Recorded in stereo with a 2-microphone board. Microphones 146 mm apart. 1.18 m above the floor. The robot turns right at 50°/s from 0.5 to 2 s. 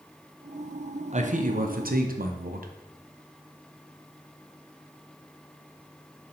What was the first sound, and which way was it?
A man speaking, 130° right.